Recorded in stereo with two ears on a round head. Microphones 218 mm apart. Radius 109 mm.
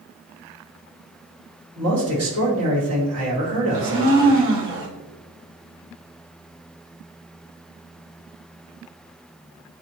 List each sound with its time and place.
1.8 s a man speaking: 65° right (ahead or behind), 1.7 m
3.7 s a blender: 50° right (ahead or behind), 0.9 m